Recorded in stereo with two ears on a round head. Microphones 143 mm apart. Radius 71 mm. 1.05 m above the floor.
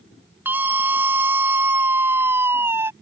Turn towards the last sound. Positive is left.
turn(degrees=-15)  # may be behind; listen again after turning